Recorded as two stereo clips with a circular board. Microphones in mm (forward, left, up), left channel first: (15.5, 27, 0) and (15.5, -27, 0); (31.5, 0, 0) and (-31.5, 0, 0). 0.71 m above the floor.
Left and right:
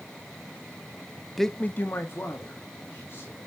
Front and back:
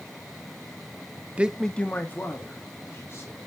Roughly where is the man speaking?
Behind.